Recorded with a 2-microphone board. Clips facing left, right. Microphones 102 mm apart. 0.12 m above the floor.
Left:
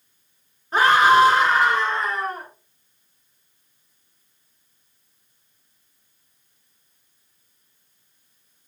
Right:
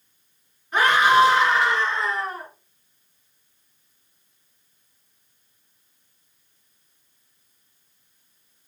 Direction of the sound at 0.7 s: 35° left (ahead or behind).